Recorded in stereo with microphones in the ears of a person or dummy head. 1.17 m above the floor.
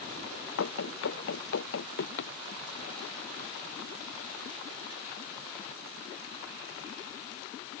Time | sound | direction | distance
0.6 | running footsteps | 70° left (ahead or behind) | ?